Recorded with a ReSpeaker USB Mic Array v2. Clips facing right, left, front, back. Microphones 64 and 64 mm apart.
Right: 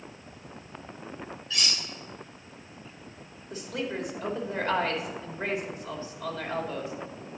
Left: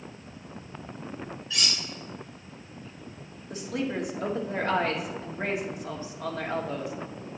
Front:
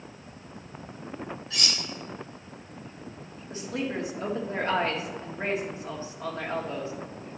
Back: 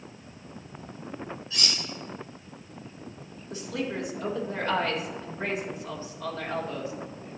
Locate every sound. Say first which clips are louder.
1.5 s cutlery clinking: even, even; 10° left, 3 m
3.5 s a woman speaking: left 2 dB, front 1 dB; 55° left, 1.9 m